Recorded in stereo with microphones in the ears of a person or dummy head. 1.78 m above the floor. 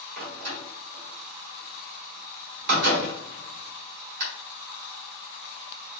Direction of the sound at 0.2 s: 55° right (ahead or behind).